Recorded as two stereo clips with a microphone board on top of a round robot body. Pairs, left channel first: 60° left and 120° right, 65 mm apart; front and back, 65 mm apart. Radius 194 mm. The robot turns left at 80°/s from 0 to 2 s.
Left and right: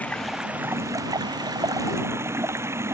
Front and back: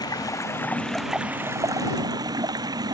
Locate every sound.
0.0 s running water: 10° right; by 2.9 s 170° right